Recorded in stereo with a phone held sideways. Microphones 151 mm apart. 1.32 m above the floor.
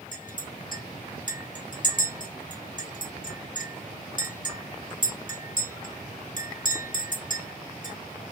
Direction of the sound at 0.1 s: 65° left (ahead or behind).